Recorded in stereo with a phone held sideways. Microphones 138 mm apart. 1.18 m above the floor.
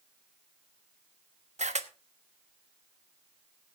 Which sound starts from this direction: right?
A camera shutter, at 1.6 s.